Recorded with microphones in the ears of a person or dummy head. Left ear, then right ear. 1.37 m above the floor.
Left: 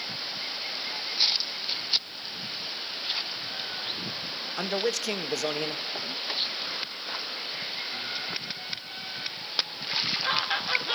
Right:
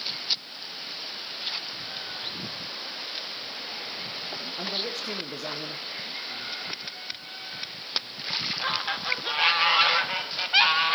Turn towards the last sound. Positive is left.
turn(degrees=80)